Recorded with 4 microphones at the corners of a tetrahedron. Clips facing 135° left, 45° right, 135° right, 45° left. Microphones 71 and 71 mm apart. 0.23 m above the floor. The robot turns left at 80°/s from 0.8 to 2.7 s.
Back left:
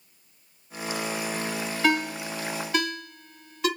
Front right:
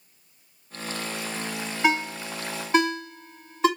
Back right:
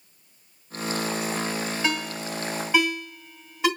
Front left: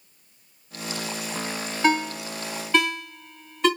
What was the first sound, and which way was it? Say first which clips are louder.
A ringtone: front right 1 dB, front left 5 dB; 5° left.